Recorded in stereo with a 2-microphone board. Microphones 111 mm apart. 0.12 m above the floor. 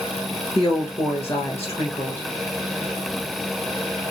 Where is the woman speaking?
25° left (ahead or behind), 1.3 m.